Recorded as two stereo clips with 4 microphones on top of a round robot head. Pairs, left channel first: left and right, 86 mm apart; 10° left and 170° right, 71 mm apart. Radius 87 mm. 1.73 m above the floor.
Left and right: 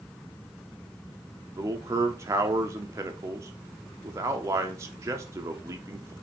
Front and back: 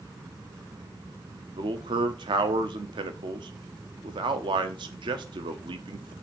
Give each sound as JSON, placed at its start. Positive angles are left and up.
{"t": 1.6, "sound": "a man speaking", "azimuth_deg": -150, "distance_m": 0.8}